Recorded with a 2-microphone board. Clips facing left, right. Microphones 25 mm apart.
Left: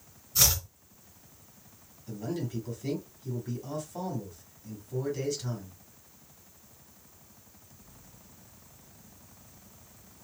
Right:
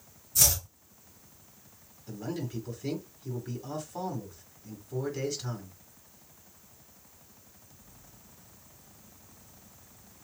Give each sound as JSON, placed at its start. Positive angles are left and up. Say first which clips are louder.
{"t": 0.3, "sound": "chopping", "louder": "left 1 dB", "side_deg": 35, "distance_m": 2.5}
{"t": 2.1, "sound": "a man speaking", "louder": "left 1 dB", "side_deg": -5, "distance_m": 1.7}